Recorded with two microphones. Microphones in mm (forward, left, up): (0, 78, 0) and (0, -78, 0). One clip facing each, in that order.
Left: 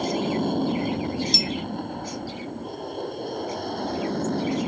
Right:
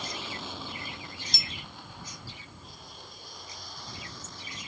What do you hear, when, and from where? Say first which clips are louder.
0.0 s an aircraft: left 16 dB; 50° left (ahead or behind); by 4.7 s 65° left (ahead or behind)
1.3 s a clink: left 16 dB; 50° right (ahead or behind)